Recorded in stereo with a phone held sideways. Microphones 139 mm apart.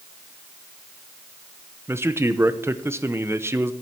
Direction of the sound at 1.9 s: 15° right (ahead or behind).